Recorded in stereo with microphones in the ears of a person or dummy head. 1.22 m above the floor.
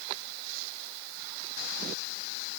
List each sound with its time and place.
Only background noise.